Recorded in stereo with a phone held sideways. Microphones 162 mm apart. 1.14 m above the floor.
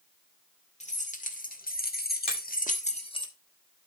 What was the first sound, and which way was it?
Keys jangling, 45° left (ahead or behind).